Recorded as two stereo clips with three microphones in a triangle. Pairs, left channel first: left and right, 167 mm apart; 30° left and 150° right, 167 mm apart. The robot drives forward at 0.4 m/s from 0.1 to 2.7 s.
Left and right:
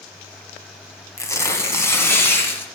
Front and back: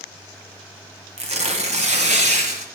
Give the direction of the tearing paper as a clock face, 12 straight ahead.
7 o'clock.